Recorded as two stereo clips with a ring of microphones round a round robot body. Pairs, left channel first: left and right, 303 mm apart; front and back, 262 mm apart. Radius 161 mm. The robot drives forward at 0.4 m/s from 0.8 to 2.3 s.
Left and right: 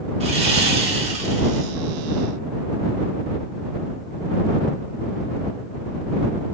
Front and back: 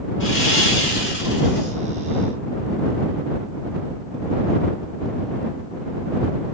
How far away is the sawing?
About 2 m.